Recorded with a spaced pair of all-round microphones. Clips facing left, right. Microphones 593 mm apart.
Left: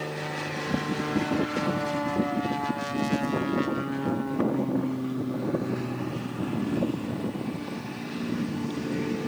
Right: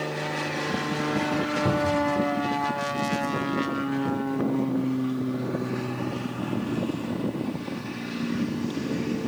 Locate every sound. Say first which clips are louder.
1.6 s a cupboard door: right 4 dB; 70° right (ahead or behind), 2 m